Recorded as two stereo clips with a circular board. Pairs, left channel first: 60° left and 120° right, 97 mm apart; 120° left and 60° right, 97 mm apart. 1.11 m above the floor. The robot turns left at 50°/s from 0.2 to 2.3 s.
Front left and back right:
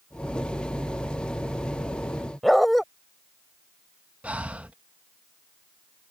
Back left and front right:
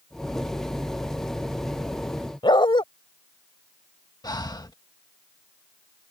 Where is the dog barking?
150° left.